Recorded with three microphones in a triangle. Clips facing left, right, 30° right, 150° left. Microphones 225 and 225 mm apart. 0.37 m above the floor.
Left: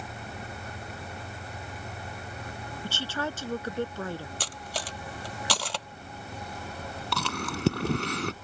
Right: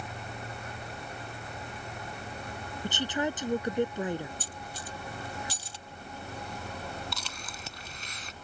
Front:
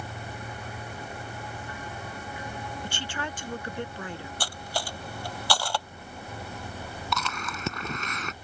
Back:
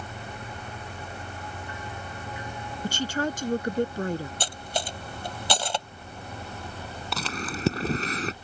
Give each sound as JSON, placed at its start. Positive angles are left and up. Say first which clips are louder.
{"t": 2.8, "sound": "a woman speaking", "louder": "right 3 dB, back 13 dB", "azimuth_deg": -160}
{"t": 4.4, "sound": "cutlery clinking", "louder": "left 5 dB, back 2 dB", "azimuth_deg": 80}
{"t": 7.1, "sound": "chewing", "louder": "left 11 dB, back 3 dB", "azimuth_deg": 95}